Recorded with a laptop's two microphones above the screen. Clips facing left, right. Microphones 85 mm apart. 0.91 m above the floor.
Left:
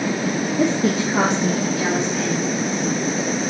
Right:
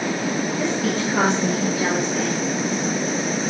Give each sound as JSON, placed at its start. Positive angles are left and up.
{"t": 0.6, "sound": "a woman speaking", "side_deg": 50, "distance_m": 0.8}